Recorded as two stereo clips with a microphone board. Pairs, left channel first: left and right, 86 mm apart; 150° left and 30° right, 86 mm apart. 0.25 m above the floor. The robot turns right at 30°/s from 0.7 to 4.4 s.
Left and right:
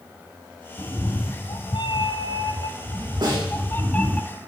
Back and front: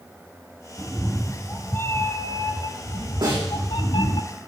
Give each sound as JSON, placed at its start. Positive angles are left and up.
{"t": 0.8, "sound": "a cat meowing", "azimuth_deg": 60, "distance_m": 0.8}
{"t": 3.2, "sound": "a snare drum", "azimuth_deg": -60, "distance_m": 5.0}